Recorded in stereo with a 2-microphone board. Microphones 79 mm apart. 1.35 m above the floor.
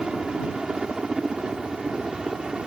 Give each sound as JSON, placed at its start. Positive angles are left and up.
{"t": 0.0, "sound": "a helicopter", "side_deg": -10}